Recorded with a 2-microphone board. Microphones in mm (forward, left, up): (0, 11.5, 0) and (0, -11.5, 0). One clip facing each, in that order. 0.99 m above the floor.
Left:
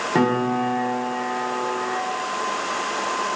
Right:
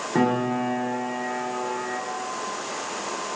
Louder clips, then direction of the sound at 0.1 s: Left 2 dB; 30° left (ahead or behind).